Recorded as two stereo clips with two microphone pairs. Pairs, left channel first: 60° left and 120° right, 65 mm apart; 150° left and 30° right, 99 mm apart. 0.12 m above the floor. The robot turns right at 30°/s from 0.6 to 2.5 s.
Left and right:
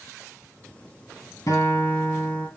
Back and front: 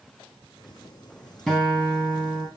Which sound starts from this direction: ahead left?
A guitar, at 1.5 s.